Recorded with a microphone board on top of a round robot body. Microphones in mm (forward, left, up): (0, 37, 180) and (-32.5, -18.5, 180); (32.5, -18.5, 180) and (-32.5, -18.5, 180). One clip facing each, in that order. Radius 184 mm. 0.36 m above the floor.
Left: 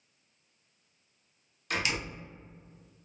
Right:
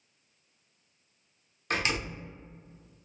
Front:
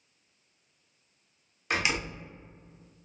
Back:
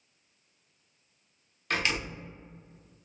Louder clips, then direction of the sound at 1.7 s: Right 2 dB, front 1 dB; 75° right.